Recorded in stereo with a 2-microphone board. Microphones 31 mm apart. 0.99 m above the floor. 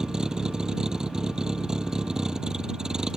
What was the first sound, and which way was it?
A vehicle, 20° right (ahead or behind).